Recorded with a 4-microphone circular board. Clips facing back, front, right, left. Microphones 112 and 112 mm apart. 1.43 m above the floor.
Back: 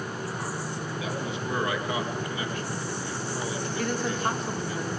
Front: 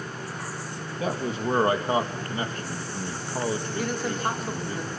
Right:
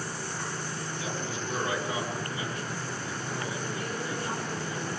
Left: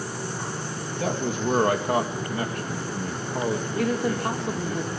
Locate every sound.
1.0 s a man speaking: 50° left, 2.5 m
3.8 s a woman speaking: 85° left, 4.5 m